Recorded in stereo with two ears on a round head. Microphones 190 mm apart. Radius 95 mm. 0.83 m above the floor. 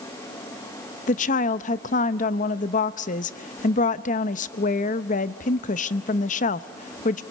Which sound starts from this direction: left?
A woman speaking, at 1.1 s.